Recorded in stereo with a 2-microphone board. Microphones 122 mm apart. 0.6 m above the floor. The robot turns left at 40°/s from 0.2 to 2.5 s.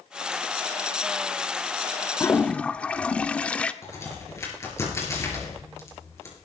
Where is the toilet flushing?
20° left (ahead or behind), 0.5 m; by 3.7 s 10° left (ahead or behind), 0.5 m.